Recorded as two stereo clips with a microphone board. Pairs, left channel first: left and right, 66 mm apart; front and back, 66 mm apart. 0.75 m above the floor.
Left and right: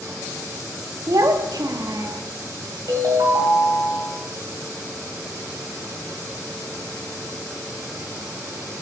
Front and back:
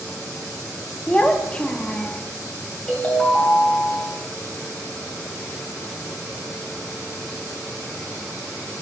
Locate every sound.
1.1 s a child speaking: 75° right, 0.6 m
2.9 s a ringtone: 75° right, 2.0 m